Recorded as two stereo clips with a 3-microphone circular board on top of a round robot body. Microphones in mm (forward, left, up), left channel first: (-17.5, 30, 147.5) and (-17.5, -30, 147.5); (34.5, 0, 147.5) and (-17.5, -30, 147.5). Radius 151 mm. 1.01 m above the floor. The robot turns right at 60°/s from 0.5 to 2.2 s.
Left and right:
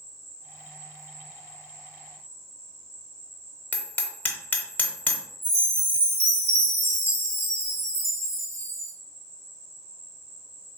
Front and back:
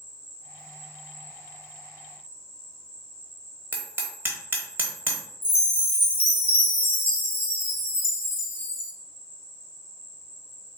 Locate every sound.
0.0 s an insect: 140° right, 1.1 m; by 10.8 s 35° right, 1.1 m
3.7 s hammering: 155° left, 0.6 m
5.4 s a chime: 30° right, 0.7 m